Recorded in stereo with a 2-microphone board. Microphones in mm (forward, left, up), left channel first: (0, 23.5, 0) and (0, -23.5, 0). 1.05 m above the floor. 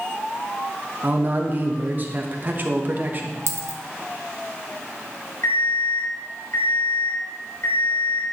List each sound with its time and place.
1.0 s a man speaking: 35° right (ahead or behind), 1.0 m
3.5 s a dropped coin: 60° right (ahead or behind), 1.0 m
5.4 s an alarm clock: 70° left (ahead or behind), 2.5 m